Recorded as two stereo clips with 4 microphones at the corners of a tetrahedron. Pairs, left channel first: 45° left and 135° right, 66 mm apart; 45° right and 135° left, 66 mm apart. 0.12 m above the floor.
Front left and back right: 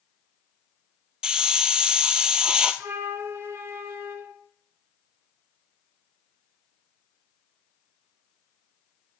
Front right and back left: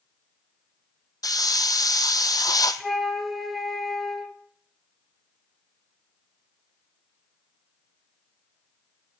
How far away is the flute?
About 1.6 m.